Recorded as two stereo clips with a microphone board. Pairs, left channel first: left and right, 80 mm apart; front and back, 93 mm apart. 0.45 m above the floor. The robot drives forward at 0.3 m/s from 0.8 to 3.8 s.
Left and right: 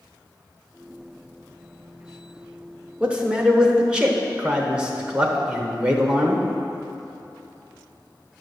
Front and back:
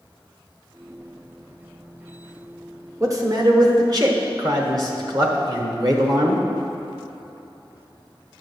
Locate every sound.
3.0 s a man speaking: 155° right, 0.9 m; by 6.4 s 165° right, 1.0 m